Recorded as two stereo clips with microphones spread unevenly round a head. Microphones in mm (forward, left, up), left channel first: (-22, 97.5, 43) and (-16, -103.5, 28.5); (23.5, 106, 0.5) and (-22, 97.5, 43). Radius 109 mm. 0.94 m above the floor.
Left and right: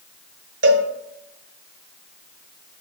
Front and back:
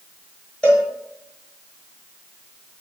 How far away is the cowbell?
About 0.9 m.